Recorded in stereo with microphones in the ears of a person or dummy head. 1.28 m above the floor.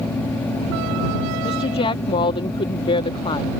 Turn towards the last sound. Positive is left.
turn(degrees=35)  # may be behind; listen again after turning